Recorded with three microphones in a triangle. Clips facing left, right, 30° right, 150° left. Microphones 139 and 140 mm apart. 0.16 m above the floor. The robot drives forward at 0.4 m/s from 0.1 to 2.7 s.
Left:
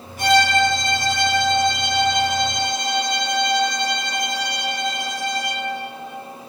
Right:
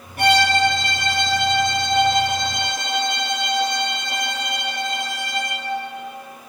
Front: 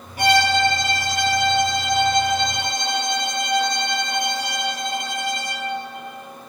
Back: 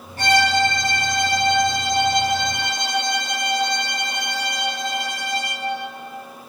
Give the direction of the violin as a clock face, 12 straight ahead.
4 o'clock.